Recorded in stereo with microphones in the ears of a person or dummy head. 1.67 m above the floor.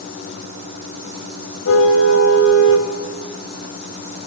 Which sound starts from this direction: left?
A car horn, at 1.6 s.